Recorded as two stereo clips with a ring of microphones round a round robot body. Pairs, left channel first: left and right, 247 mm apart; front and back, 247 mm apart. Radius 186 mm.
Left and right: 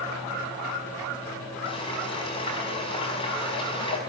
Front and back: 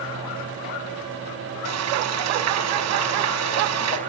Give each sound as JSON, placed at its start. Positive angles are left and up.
{"t": 1.6, "sound": "frying", "azimuth_deg": 165, "distance_m": 4.5}